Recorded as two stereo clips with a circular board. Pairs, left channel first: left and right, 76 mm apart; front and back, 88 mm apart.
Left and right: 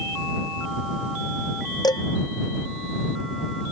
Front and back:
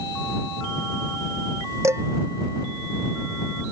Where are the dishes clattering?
125° left.